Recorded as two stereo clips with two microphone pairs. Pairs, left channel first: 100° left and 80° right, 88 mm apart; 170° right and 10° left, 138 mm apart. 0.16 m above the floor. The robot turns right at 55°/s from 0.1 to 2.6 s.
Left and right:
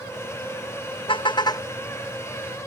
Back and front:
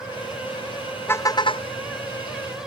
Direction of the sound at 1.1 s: 115° left.